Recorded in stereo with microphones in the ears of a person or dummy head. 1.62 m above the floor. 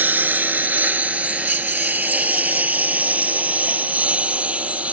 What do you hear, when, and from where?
0.0 s a lawn mower: 15° right (ahead or behind); by 5.0 s 10° right (ahead or behind)